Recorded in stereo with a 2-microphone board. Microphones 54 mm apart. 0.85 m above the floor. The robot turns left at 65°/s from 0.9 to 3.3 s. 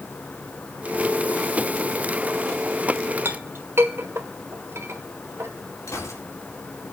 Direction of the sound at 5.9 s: 75° left (ahead or behind).